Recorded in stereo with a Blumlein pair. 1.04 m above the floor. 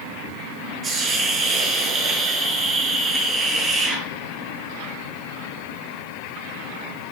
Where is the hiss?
20° right, 8 m.